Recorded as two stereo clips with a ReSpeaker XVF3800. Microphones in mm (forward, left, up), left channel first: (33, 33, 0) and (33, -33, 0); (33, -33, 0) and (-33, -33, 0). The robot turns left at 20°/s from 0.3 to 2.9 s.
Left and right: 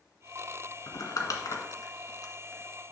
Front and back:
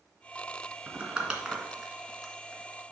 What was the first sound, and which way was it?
Crumpling, 115° left.